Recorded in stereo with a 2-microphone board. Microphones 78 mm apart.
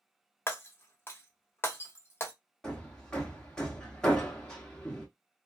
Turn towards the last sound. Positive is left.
turn(degrees=10)  # may be behind; listen again after turning